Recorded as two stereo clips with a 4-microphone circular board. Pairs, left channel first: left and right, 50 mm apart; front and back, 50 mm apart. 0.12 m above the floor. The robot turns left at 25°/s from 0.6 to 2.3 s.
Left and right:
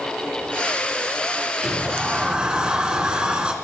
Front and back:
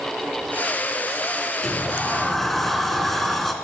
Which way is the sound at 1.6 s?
60° right.